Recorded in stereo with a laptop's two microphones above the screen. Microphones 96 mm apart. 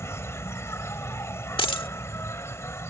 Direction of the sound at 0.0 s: 30° left (ahead or behind).